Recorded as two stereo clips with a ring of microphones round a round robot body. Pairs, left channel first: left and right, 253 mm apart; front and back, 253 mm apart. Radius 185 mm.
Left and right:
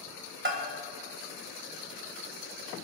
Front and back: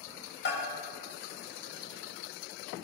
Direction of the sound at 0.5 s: 50° right.